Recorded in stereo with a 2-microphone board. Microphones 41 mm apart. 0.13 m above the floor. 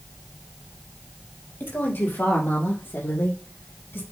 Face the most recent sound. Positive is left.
turn(degrees=60)  # may be behind; listen again after turning